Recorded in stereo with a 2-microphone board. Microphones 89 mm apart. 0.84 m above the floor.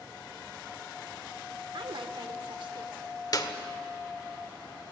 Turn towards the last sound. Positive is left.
turn(degrees=50)  # may be behind; listen again after turning